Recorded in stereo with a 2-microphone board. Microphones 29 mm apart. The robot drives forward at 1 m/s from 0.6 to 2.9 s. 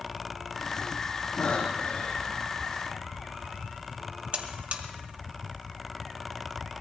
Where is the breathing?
40° left (ahead or behind), 4 m; by 2.4 s 50° left (ahead or behind), 3.5 m.